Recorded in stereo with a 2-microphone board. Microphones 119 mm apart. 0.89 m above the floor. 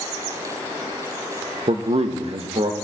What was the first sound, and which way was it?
A man speaking, 55° right (ahead or behind).